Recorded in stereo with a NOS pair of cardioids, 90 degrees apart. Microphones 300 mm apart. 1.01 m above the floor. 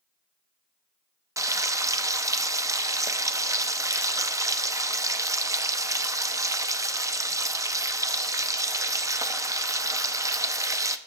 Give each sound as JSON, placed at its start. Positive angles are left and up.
{"t": 1.4, "sound": "frying", "azimuth_deg": -10, "distance_m": 0.7}